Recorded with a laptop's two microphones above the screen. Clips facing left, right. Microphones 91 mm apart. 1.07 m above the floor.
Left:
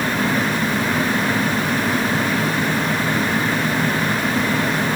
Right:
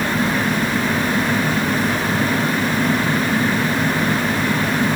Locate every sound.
Only background noise.